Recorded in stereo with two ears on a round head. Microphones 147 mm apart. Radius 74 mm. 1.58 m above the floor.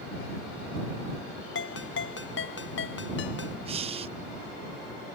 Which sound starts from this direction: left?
A ringtone, at 1.6 s.